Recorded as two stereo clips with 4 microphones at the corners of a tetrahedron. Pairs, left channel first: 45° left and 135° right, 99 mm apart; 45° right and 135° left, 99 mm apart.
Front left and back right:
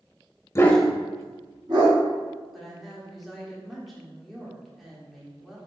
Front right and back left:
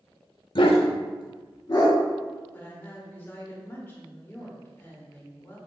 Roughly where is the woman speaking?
Ahead right.